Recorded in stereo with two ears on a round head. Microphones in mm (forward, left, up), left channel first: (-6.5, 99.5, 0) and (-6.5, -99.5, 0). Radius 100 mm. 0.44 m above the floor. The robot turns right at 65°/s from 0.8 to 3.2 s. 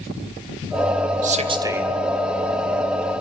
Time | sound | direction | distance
1.2 | a man speaking | 50° right | 2 m